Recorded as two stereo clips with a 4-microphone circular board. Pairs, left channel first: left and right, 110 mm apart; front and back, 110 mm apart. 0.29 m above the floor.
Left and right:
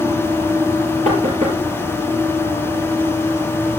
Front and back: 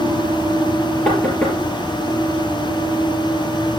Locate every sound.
1.1 s knocking: 80° right, 4 m